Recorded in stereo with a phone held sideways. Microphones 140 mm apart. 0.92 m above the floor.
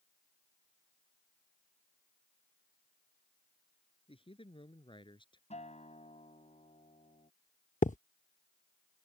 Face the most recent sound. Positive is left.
turn(degrees=60)  # may be behind; listen again after turning